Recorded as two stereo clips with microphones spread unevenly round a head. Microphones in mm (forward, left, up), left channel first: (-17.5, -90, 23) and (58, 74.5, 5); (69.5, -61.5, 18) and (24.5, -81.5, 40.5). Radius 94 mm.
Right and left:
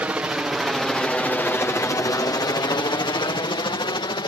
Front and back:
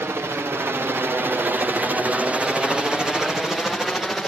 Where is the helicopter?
145° left; by 4.3 s 50° right.